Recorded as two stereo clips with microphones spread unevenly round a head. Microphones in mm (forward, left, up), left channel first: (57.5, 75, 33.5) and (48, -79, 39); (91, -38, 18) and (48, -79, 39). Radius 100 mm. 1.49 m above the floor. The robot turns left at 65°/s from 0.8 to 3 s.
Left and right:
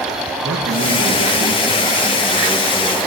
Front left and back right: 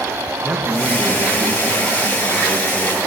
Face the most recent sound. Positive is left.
turn(degrees=140)